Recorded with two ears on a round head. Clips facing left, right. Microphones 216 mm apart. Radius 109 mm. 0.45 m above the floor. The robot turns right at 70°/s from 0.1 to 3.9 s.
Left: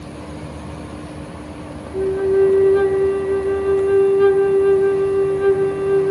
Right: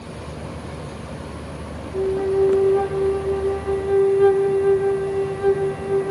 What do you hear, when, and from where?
1.9 s a flute: 10° left (ahead or behind), 1.5 m